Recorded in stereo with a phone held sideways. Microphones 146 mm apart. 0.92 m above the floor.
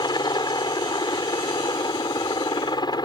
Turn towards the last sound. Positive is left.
turn(degrees=30)  # may be behind; listen again after turning